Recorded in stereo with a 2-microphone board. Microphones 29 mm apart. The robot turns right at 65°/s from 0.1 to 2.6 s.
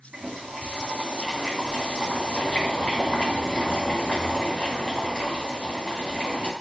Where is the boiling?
90° right, 2.5 m; by 6.5 s 70° left, 2.5 m.